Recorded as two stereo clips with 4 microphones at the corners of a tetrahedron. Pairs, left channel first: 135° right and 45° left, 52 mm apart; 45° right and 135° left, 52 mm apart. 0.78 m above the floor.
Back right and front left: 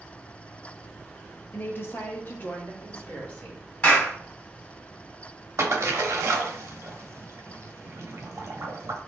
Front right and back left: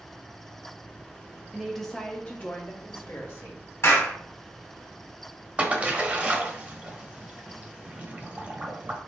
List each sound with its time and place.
1.5 s a woman speaking: 150° right, 0.9 m; by 3.6 s 75° right, 2.0 m
3.8 s a clap: 70° right, 1.9 m
5.6 s a splash: 75° left, 0.8 m